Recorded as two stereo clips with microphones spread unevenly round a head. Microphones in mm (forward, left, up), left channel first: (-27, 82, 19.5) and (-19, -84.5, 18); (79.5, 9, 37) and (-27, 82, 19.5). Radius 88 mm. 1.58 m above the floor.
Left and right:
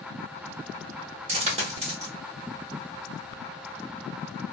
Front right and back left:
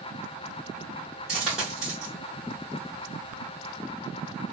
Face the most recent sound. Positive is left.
turn(degrees=-120)